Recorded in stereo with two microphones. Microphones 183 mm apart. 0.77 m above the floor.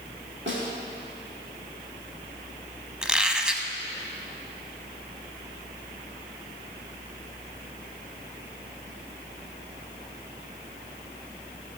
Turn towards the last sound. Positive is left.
turn(degrees=-5)  # may be behind; listen again after turning